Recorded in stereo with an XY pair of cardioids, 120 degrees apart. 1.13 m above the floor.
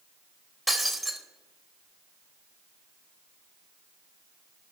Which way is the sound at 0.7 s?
10° right.